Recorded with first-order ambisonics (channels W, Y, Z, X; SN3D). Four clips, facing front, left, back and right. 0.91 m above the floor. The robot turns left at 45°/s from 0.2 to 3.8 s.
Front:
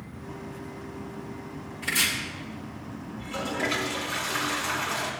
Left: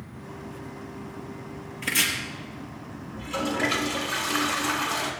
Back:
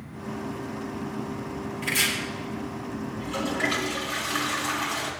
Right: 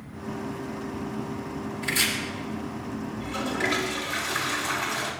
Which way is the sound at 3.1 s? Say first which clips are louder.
Left 3 dB, back 1 dB; 95° left.